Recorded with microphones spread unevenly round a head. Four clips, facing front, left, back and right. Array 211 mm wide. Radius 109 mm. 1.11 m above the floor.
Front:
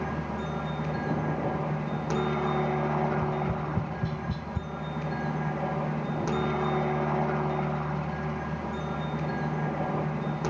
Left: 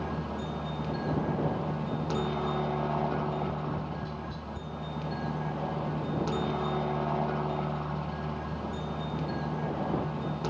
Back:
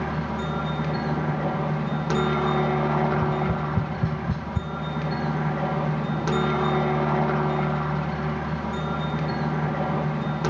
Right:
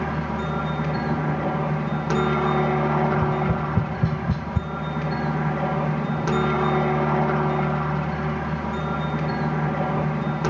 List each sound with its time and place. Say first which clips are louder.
0.0 s a helicopter: right 8 dB, back 4 dB; 120° right
3.1 s tapping: right 9 dB, back 5 dB; 110° right